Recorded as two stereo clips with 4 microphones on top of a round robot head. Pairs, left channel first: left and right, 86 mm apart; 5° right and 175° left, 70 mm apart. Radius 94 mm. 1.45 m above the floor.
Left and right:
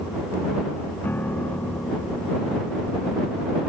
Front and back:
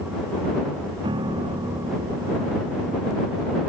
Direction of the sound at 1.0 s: 160° left.